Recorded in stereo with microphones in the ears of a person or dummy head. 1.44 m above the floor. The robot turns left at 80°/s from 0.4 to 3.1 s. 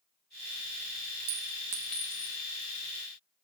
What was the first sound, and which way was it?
A clink, 40° right (ahead or behind).